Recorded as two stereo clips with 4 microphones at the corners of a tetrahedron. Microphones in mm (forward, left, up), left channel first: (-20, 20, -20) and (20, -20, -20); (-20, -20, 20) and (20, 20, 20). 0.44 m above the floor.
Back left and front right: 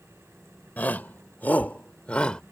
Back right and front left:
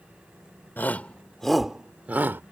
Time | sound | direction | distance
0.8 | a shout | 175° right | ?